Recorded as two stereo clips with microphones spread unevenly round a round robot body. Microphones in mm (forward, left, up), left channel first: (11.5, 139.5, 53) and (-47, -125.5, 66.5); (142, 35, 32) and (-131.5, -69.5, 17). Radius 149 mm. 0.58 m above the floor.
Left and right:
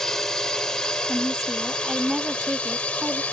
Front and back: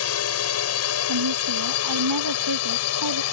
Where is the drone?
10° right; by 3.3 s 5° right.